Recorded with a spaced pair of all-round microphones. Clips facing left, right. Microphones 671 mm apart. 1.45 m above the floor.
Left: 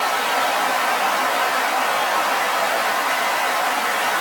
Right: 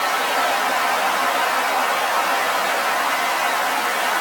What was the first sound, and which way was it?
Only background noise.